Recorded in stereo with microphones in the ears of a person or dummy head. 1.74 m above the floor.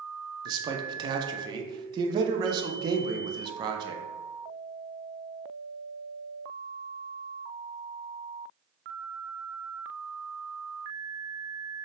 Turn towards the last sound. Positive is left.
turn(degrees=-25)  # may be behind; listen again after turning